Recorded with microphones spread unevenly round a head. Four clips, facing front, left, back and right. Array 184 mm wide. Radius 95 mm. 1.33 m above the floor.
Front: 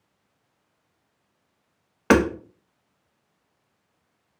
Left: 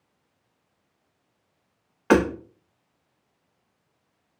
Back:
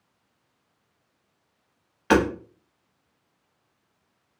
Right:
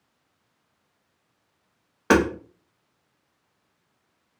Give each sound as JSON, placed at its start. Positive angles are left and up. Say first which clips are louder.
{"t": 2.1, "sound": "hammering", "louder": "even, front 2 dB", "azimuth_deg": -35, "distance_m": 0.6}